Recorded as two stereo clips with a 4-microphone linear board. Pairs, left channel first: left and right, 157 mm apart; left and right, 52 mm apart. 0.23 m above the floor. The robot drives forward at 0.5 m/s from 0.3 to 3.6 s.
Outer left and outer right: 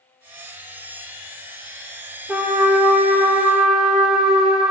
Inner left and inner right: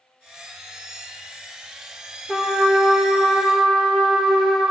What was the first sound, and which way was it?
A trumpet, 10° right (ahead or behind).